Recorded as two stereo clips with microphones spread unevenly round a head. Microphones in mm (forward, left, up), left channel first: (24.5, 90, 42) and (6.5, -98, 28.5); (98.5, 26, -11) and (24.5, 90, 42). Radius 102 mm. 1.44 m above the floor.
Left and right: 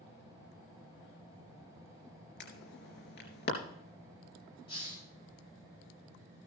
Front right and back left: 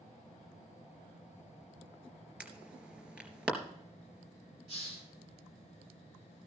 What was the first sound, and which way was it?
An alarm, 60° left.